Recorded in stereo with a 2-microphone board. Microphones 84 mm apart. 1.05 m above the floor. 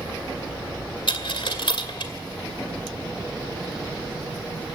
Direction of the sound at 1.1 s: 65° left (ahead or behind).